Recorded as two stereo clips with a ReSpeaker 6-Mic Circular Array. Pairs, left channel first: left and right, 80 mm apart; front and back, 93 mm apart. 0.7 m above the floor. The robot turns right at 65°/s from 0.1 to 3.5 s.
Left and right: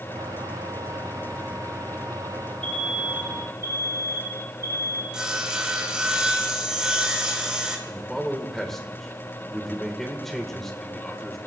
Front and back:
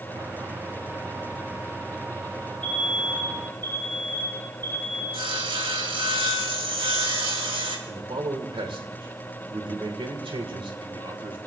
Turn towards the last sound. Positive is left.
turn(degrees=175)